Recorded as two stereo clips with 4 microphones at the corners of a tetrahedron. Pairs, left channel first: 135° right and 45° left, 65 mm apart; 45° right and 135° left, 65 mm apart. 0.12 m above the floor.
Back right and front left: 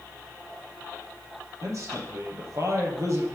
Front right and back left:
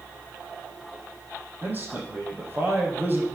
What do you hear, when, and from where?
1.6 s a man speaking: 80° left, 3.5 m